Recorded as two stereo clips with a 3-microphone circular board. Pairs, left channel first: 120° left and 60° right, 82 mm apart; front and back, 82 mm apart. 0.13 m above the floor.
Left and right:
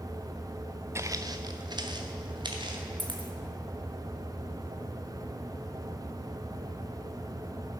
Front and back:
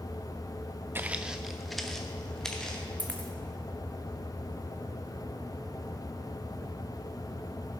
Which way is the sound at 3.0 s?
75° right.